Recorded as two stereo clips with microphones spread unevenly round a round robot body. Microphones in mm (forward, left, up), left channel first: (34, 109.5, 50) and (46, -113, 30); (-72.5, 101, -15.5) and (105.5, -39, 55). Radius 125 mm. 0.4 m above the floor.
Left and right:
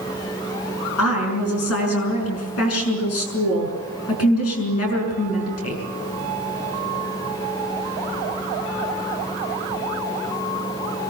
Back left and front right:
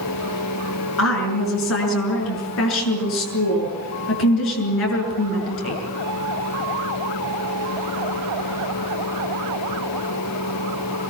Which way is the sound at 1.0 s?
125° left.